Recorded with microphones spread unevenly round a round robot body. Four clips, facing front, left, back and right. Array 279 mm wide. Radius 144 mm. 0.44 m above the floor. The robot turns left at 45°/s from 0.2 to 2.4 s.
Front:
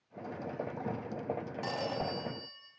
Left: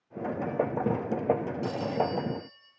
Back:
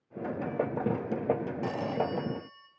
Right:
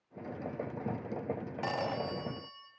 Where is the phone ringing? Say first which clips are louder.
Left 4 dB, back 4 dB; 85° right, 3 m; by 2.7 s 120° right, 3 m.